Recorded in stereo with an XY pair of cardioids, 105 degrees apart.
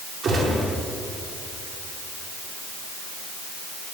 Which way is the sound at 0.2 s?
55° right.